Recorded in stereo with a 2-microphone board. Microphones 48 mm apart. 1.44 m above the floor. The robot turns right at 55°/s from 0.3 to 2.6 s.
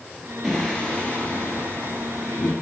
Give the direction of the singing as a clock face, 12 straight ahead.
12 o'clock.